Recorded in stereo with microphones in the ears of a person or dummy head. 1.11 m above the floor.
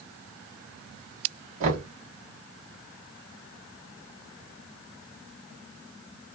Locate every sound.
1.6 s knocking: 40° right (ahead or behind), 1.3 m